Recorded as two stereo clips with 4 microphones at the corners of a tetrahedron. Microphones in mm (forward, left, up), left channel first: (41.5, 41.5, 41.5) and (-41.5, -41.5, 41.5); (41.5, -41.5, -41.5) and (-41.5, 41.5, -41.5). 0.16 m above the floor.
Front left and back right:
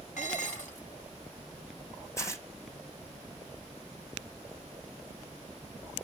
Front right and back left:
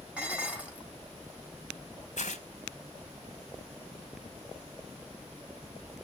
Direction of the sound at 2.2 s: 20° right.